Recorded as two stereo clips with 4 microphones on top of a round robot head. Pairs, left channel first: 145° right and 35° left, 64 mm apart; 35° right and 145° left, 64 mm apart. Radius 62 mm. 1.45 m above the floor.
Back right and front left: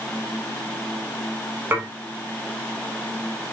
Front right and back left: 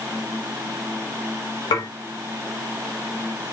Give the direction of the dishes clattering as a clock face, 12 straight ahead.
1 o'clock.